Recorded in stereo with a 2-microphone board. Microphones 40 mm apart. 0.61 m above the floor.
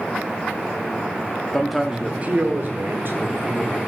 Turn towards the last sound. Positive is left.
turn(degrees=-65)  # may be behind; listen again after turning